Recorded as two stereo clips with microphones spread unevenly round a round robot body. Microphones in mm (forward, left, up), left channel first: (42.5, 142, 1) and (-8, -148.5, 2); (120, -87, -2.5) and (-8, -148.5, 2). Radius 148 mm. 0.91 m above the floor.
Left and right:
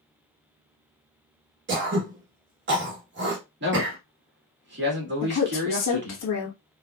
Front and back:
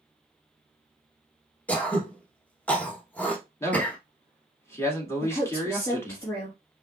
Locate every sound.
1.7 s throat clearing: 55° right, 1.2 m
3.6 s a man speaking: 45° right, 2 m
5.2 s a woman speaking: 100° left, 1.2 m